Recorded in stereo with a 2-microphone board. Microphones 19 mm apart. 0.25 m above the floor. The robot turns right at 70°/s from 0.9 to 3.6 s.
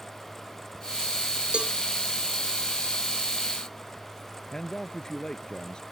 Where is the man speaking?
45° left (ahead or behind).